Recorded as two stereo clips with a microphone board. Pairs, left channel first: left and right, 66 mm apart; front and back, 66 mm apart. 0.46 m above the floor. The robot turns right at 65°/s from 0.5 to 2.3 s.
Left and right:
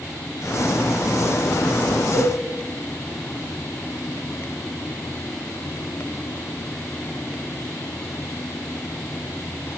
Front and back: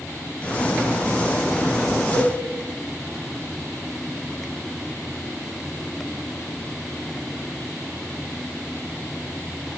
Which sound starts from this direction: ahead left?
A cowbell, at 2.1 s.